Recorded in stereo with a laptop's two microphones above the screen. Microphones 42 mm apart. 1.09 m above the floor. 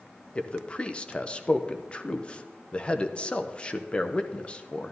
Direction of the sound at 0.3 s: 25° left (ahead or behind).